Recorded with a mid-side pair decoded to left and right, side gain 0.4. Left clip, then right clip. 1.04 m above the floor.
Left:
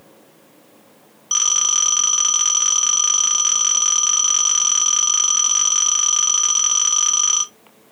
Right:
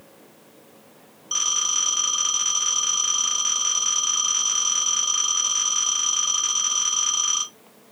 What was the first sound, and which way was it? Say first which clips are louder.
A phone ringing: left 5 dB; 65° left.